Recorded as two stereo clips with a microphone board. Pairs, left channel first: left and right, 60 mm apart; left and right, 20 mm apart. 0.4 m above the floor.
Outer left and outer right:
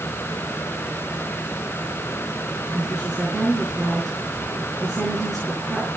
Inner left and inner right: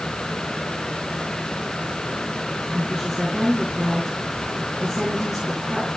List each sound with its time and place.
2.7 s a woman speaking: centre (ahead or behind), 6 m